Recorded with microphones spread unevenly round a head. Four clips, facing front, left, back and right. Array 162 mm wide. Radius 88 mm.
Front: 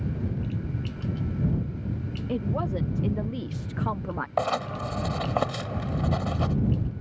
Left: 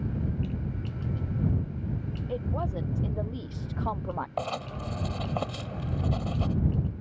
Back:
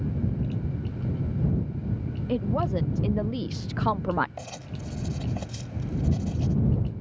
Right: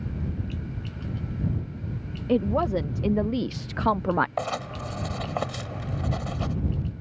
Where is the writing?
15° right.